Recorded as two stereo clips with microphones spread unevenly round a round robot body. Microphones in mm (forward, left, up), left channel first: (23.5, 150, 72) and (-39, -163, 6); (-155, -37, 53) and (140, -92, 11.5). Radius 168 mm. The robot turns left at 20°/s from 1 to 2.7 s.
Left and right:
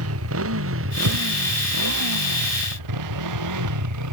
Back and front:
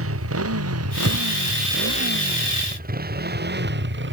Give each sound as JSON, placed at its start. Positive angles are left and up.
{"t": 0.0, "sound": "a motorcycle", "azimuth_deg": -55}
{"t": 1.0, "sound": "breathing", "azimuth_deg": -65}